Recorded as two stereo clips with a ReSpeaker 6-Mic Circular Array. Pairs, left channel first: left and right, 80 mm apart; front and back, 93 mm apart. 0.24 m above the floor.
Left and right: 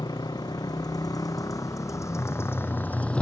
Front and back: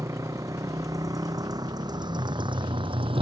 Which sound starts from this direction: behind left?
A motorcycle, at 0.0 s.